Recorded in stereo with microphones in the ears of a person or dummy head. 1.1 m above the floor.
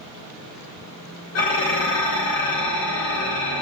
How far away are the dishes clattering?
About 1.1 m.